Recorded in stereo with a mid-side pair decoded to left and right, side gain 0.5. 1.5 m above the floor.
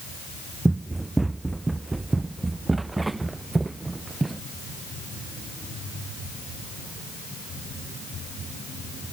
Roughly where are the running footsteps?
Ahead.